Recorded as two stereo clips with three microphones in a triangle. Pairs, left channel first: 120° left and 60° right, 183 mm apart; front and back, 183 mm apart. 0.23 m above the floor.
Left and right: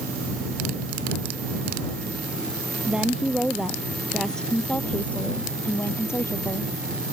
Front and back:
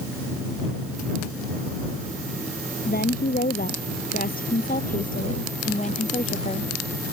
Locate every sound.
2.9 s a woman speaking: 25° left; by 6.7 s 50° left